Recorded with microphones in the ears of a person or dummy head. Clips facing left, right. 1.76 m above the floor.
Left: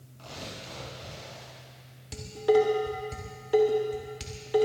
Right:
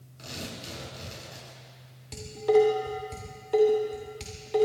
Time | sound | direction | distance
0.2 | tearing paper | 25° right (ahead or behind) | 6 m
2.1 | dishes clattering | 5° left (ahead or behind) | 2 m